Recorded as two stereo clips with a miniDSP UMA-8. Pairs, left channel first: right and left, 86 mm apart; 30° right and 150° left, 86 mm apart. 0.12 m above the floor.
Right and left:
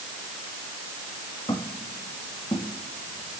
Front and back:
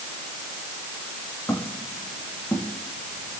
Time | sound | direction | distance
1.5 | footsteps | 95° right | 10 m